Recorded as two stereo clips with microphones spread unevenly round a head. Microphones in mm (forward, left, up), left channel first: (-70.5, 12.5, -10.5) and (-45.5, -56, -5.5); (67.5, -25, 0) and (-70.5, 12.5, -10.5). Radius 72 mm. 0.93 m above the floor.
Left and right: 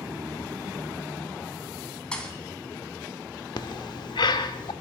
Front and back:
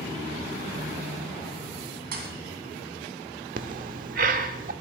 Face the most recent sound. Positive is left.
turn(degrees=130)